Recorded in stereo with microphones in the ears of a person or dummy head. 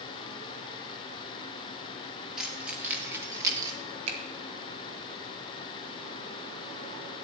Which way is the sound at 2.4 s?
Centre (ahead or behind).